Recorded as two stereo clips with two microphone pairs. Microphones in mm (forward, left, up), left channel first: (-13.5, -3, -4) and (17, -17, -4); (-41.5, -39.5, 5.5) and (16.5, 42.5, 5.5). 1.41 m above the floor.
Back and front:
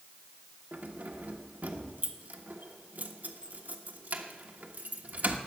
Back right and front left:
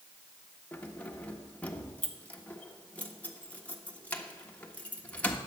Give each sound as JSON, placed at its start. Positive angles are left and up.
{"t": 0.7, "sound": "keys jangling", "azimuth_deg": -50, "distance_m": 1.3}